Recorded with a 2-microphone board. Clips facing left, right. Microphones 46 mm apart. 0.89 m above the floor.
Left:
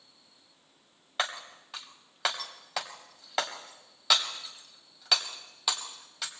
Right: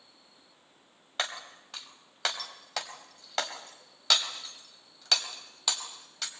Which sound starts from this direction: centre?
Breaking glass, at 1.2 s.